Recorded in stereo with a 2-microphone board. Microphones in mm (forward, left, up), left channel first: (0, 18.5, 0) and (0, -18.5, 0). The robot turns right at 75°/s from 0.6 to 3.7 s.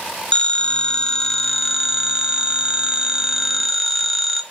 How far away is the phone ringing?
About 0.5 m.